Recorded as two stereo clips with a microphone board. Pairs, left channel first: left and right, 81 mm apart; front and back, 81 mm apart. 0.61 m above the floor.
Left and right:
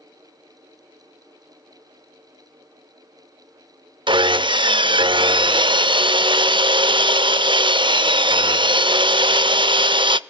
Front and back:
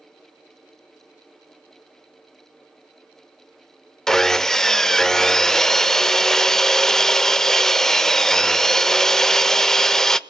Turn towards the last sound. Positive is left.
turn(degrees=-85)